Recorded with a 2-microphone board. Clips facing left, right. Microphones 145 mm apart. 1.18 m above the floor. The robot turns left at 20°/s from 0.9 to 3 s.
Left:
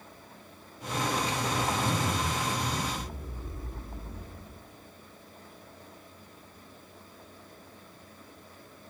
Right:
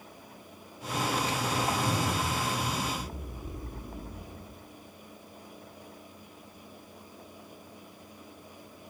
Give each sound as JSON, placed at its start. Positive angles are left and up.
{"t": 1.5, "sound": "a zipper", "side_deg": 5, "distance_m": 8.5}